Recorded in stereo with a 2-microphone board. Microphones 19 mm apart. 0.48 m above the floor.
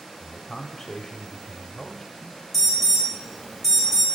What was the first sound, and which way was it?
A man speaking, 15° left (ahead or behind).